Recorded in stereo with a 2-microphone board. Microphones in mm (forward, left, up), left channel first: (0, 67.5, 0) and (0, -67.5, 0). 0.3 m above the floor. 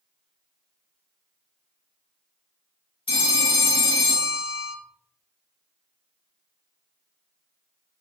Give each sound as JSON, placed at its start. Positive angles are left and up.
{"t": 3.1, "sound": "a phone ringing", "side_deg": 45, "distance_m": 1.2}